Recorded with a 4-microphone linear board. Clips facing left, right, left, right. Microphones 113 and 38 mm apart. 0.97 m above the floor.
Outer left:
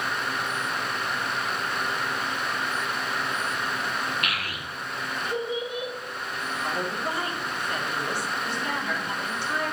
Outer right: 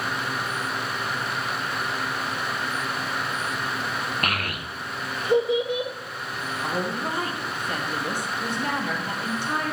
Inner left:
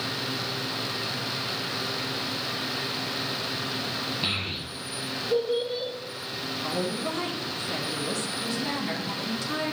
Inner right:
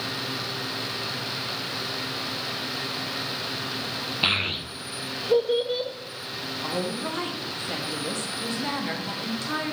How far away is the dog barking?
No dog barking in this recording.